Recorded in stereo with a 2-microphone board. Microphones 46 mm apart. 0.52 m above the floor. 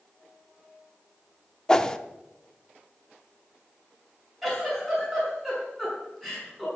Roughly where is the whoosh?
Centre.